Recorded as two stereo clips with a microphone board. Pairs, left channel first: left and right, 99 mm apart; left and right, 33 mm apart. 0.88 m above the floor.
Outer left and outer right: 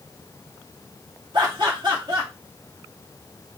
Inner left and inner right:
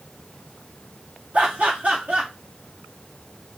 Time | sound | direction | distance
1.3 | laughter | 50° right (ahead or behind) | 2 m